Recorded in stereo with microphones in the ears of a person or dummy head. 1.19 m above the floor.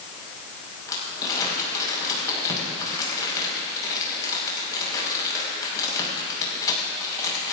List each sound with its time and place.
0.9 s crumpling: 20° left (ahead or behind), 6 m